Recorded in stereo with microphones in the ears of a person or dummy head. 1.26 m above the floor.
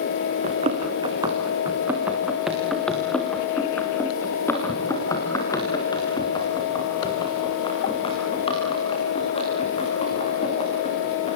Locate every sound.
0.4 s running footsteps: 35° right (ahead or behind), 3.5 m; by 11.3 s 30° left (ahead or behind), 14 m